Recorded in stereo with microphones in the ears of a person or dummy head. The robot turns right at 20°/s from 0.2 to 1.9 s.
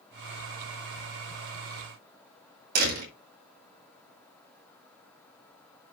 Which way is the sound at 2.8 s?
50° right (ahead or behind).